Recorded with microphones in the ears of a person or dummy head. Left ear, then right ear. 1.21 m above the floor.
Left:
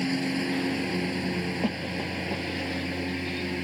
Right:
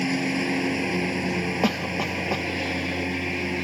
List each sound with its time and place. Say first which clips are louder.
0.0 s a lawn mower: right 3 dB; 10° right (ahead or behind)
1.6 s a cough: right 6 dB; 50° right (ahead or behind)